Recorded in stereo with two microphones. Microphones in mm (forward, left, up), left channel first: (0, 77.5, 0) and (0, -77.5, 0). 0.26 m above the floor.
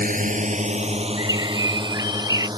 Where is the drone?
60° right (ahead or behind); by 2.6 s 25° right (ahead or behind).